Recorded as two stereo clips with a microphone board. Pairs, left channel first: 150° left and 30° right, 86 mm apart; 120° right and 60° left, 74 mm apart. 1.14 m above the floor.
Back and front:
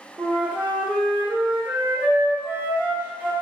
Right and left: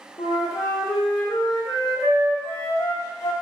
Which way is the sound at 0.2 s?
105° right.